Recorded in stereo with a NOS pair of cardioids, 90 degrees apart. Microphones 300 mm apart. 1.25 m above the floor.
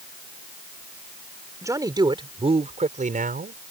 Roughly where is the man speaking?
Ahead.